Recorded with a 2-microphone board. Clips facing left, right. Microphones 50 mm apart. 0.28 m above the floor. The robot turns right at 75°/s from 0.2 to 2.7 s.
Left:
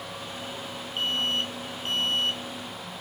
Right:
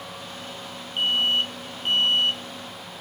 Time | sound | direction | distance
1.0 | an alarm | 15° right (ahead or behind) | 1.0 m